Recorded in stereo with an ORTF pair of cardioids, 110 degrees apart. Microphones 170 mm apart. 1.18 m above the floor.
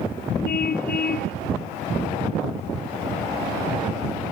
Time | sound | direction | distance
0.5 | a car horn | 65° left | ?